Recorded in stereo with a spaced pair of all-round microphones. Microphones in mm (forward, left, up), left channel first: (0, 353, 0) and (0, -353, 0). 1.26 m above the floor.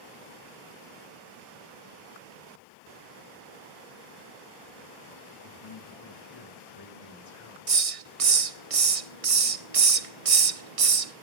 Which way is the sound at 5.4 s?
45° left (ahead or behind).